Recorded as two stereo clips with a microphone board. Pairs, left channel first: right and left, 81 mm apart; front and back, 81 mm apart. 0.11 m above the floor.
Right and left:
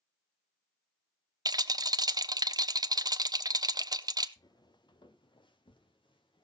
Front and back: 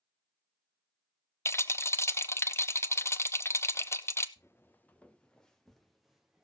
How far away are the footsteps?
About 1.0 m.